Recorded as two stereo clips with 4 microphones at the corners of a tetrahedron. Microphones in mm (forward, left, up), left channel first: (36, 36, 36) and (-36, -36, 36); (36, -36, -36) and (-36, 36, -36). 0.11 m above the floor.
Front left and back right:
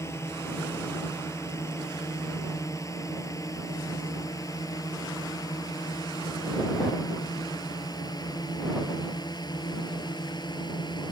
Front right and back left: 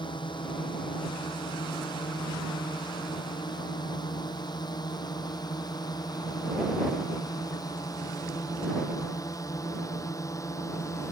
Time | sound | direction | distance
0.0 | a drone | 15° right | ?